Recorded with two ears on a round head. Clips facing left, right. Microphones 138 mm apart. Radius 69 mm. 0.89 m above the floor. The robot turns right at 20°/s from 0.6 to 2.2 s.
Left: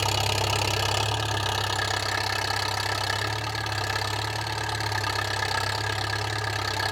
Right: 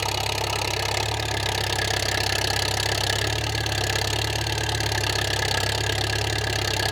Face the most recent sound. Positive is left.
turn(degrees=-145)